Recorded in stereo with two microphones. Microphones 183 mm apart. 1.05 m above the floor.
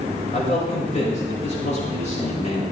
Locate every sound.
0.3 s a man speaking: 40° left (ahead or behind), 6 m